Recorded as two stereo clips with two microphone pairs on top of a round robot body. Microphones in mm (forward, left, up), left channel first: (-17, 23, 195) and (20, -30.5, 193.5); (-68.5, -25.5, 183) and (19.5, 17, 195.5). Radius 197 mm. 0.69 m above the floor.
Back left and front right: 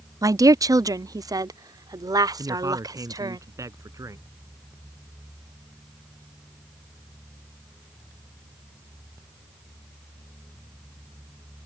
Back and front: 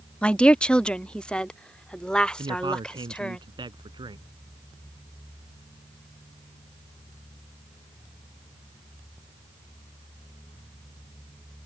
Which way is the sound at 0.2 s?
80° right.